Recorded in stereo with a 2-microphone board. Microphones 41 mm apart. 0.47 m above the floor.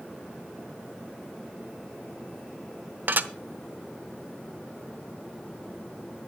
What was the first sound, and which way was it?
Dishes clattering, 50° right (ahead or behind).